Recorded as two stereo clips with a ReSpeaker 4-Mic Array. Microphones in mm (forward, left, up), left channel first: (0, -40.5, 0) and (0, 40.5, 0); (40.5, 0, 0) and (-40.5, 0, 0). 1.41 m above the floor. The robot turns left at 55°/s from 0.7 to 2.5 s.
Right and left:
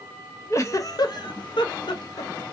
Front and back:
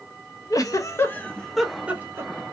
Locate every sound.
0.5 s a giggle: 40° right, 0.5 m; by 2.3 s 130° right, 0.5 m